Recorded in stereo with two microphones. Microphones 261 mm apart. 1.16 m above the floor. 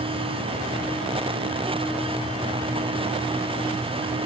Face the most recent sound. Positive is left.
No sound to turn to.